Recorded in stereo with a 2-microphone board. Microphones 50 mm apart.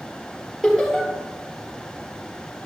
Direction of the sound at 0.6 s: Centre (ahead or behind).